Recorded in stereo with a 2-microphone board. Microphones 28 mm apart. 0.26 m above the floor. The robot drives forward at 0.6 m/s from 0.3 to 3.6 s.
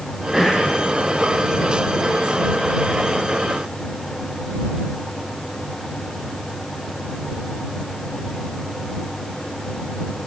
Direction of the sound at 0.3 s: 5° right (ahead or behind).